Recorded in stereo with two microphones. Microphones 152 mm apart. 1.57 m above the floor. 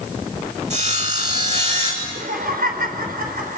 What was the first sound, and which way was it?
Sawing, 50° right (ahead or behind).